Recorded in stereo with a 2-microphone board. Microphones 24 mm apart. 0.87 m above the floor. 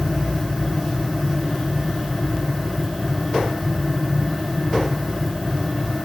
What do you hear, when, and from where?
Only background noise.